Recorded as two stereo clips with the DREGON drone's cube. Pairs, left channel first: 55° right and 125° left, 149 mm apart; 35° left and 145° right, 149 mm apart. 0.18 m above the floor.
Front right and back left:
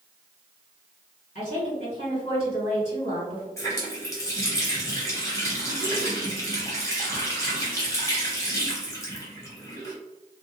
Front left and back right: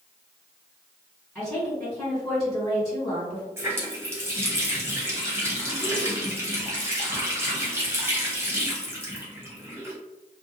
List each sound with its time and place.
1.4 s a woman speaking: 50° right, 1.9 m
3.6 s a running tap: 95° right, 1.0 m